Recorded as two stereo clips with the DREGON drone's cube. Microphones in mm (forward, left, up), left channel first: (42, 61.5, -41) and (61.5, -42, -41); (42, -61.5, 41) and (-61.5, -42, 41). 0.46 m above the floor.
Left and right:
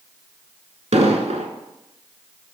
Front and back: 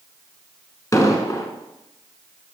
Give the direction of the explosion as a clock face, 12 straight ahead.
2 o'clock.